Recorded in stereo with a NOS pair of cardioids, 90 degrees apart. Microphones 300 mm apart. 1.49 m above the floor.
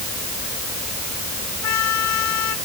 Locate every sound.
1.6 s a trumpet: 70° left